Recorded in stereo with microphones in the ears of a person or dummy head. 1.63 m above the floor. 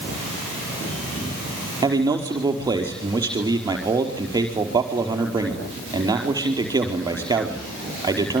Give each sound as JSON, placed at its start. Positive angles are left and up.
{"t": 1.8, "sound": "a man speaking", "side_deg": -15, "distance_m": 4.5}